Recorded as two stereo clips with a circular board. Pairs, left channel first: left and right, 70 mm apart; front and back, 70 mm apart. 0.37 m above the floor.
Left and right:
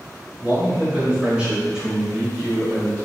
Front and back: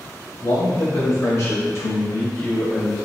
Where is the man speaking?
25° right, 1.8 m; by 3.0 s 75° left, 1.0 m.